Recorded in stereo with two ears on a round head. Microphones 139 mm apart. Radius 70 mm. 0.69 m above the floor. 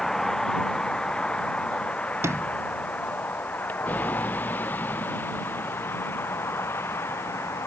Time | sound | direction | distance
0.0 | a vehicle | centre (ahead or behind) | ?
2.2 | a sliding door | 20° right (ahead or behind) | ?